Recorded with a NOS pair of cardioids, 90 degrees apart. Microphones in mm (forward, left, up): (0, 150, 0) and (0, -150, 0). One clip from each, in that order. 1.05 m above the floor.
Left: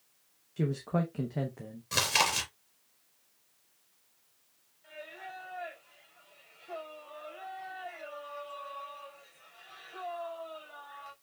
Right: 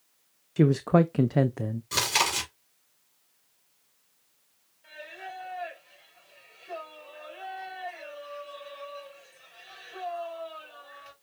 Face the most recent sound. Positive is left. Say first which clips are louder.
# right 3 dB
turn(degrees=-20)